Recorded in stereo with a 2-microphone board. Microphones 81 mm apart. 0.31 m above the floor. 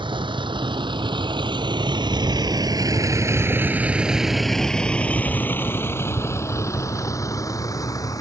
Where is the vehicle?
85° right; by 8.2 s 45° left (ahead or behind).